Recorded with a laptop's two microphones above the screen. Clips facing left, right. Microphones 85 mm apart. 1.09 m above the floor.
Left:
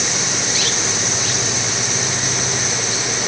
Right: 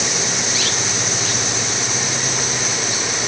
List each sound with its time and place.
Only background noise.